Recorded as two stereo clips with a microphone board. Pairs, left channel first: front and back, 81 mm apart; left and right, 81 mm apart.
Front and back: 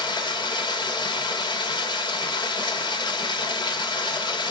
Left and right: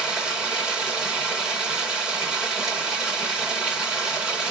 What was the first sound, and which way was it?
Running water, 5° right.